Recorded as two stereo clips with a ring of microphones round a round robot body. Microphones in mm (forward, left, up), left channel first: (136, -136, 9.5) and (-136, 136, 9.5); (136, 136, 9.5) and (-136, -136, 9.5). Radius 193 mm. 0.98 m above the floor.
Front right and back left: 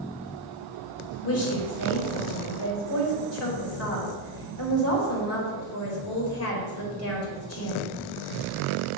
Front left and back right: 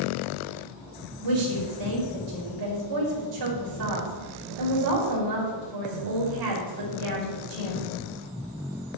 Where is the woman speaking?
100° right, 4 m.